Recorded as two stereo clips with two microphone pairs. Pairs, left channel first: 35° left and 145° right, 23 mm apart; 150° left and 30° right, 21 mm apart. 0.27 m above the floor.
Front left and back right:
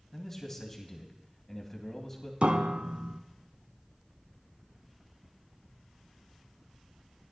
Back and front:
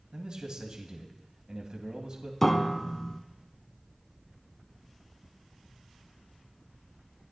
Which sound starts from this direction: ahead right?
A man speaking, at 0.1 s.